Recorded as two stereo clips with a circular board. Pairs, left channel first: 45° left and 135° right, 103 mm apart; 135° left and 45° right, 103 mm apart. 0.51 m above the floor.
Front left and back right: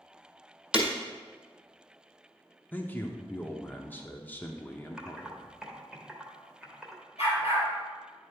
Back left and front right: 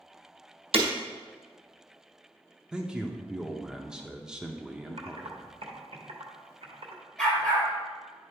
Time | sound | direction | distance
0.7 | breaking glass | 55° right | 1.3 m
2.7 | a man speaking | 20° left | 0.6 m
5.0 | typing on a keyboard | 50° right | 1.1 m
7.2 | a dog barking | 55° left | 3 m